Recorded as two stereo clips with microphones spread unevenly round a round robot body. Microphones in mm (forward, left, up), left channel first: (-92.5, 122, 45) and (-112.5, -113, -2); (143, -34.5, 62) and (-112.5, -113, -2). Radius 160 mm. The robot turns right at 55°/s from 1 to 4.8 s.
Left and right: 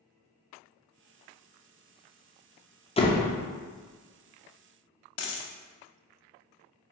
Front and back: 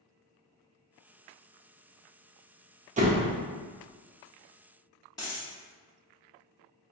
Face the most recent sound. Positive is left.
turn(degrees=90)